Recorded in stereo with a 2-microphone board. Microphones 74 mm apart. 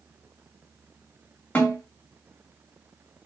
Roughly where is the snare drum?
Left.